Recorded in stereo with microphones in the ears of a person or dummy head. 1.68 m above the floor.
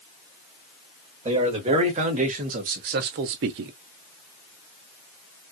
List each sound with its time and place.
1.2 s a man speaking: 30° right (ahead or behind), 1.8 m; by 3.7 s 45° right (ahead or behind), 0.5 m